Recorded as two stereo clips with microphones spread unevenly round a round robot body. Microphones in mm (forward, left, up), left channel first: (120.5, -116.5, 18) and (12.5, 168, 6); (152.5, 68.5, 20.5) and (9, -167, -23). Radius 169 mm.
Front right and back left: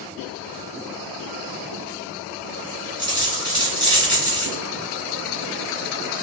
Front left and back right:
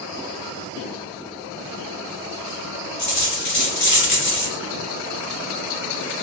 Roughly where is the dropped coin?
Ahead left.